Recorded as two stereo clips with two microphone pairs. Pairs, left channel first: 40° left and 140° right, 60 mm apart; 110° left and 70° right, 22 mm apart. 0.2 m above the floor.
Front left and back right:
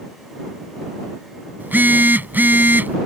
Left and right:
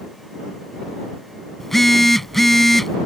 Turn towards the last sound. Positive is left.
turn(degrees=180)